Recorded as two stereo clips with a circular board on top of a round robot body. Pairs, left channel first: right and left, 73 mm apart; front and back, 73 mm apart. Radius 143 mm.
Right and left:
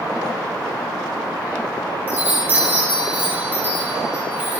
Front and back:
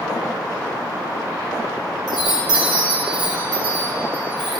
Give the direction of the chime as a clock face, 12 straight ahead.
7 o'clock.